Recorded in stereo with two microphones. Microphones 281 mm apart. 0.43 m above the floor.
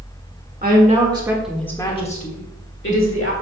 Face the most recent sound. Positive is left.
turn(degrees=50)  # may be behind; listen again after turning